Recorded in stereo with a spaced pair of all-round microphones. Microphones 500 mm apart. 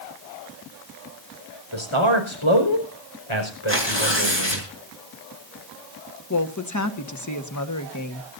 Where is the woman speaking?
35° left (ahead or behind), 1.5 m.